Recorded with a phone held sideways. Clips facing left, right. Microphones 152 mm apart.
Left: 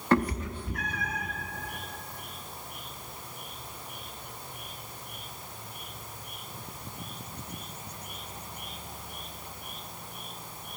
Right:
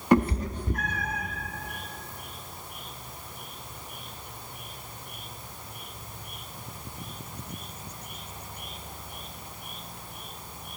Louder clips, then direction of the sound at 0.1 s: Right 4 dB; 15° right (ahead or behind).